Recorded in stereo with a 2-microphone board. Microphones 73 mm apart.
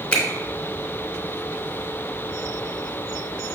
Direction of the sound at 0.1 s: 15° left (ahead or behind).